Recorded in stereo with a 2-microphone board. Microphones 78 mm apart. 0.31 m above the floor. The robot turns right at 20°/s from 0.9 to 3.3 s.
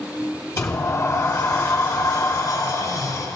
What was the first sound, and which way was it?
A sliding door, 60° left.